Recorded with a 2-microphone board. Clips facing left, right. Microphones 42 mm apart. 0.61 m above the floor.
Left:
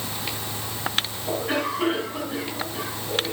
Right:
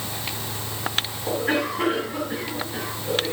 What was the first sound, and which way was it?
A cough, 55° right (ahead or behind).